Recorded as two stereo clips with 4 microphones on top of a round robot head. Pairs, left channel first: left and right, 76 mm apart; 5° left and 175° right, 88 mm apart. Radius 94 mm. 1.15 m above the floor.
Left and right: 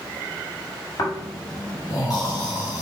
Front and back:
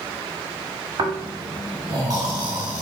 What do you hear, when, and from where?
1.0 s snoring: 145° left, 1.6 m